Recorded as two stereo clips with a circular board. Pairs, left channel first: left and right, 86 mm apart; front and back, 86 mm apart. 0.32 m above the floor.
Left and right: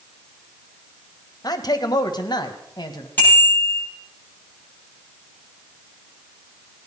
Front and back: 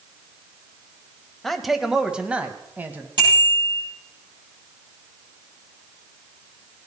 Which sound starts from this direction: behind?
A bicycle bell, at 3.2 s.